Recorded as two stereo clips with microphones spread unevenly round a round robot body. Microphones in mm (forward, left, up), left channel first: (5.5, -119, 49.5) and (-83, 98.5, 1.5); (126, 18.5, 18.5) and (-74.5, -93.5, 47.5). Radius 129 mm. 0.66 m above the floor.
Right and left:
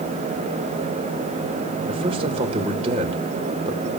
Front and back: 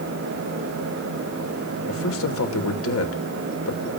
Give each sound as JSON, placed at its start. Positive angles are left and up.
{"t": 1.9, "sound": "a man speaking", "azimuth_deg": 50, "distance_m": 2.0}